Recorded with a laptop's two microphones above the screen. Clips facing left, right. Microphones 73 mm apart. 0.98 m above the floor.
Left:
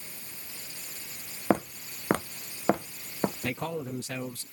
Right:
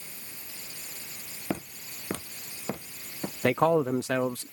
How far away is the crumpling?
No crumpling in this recording.